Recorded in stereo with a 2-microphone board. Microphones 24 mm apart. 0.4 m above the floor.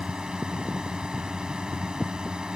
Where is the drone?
35° right (ahead or behind).